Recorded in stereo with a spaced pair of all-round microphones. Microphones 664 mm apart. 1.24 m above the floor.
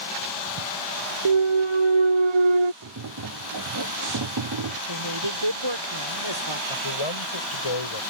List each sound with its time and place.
1.2 s a clunk: 45° right (ahead or behind)
2.8 s tapping: 35° right (ahead or behind)
4.9 s a woman speaking: 40° right (ahead or behind)
6.7 s a man speaking: 45° left (ahead or behind)